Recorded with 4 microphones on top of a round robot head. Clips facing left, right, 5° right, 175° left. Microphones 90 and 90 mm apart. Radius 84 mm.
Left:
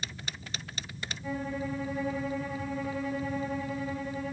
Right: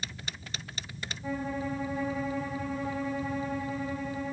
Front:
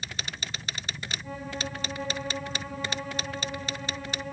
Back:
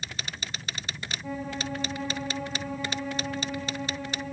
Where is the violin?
150° right, 6.5 m.